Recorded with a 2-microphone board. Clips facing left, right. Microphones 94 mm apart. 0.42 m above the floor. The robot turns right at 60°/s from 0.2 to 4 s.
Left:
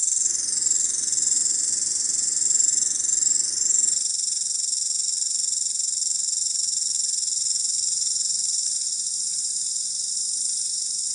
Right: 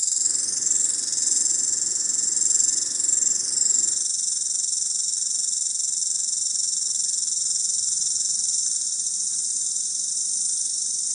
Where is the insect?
20° right, 0.8 m; by 11.2 s 150° right, 0.8 m.